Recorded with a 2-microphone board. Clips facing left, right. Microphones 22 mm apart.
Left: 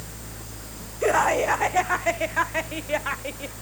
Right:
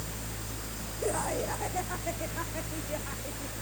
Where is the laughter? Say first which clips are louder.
Left 11 dB; 60° left (ahead or behind).